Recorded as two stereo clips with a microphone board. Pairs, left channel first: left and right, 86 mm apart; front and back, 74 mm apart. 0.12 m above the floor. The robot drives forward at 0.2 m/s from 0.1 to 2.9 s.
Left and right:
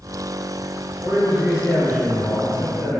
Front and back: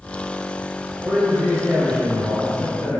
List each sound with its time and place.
1.0 s a man speaking: 170° right, 1.5 m; by 3.0 s 175° right, 1.7 m